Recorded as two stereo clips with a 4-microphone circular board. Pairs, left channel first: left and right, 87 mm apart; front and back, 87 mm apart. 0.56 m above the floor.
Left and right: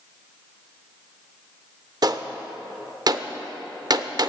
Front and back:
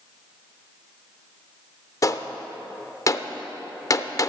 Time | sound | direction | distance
2.0 | a gunshot | 50° right | 0.5 m